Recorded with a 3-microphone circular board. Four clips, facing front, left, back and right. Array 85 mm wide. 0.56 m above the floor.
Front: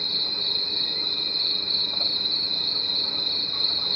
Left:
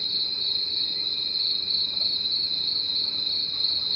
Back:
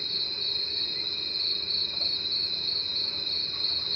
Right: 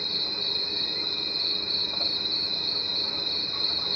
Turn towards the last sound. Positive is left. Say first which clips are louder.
# right 5 dB, front 5 dB
turn(degrees=-45)